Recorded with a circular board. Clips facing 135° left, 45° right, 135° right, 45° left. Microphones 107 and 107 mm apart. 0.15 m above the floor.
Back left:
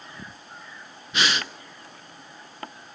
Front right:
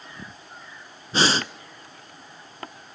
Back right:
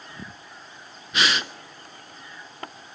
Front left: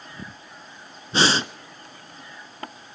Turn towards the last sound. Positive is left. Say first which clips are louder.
# front right 4 dB, front left 4 dB
turn(degrees=0)